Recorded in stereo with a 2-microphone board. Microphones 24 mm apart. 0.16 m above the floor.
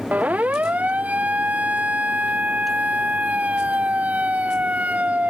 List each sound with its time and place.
0.1 s a siren: 85° right; by 5.3 s 80° right